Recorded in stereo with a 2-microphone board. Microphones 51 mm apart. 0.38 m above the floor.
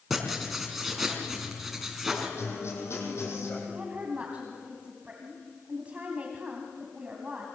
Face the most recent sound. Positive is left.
turn(degrees=-25)  # may be behind; listen again after turning